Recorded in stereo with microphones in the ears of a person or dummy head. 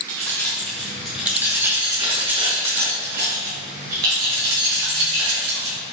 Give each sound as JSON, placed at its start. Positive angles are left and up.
{"t": 0.1, "sound": "keys jangling", "side_deg": 15, "distance_m": 1.7}